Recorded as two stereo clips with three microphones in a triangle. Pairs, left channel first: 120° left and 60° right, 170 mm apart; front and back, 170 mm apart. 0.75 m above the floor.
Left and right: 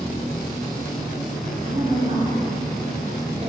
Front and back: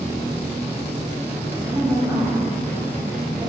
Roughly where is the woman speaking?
Right.